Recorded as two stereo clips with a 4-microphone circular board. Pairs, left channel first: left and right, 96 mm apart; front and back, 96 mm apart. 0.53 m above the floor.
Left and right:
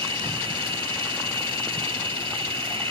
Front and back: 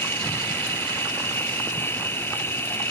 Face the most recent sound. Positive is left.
turn(degrees=-65)